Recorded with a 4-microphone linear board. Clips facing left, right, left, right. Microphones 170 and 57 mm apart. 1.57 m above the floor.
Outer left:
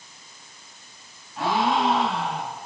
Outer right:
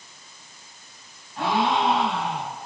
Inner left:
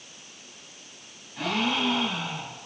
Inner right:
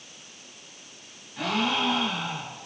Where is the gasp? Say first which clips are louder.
Even, inner right 1 dB; centre (ahead or behind), 7.5 m.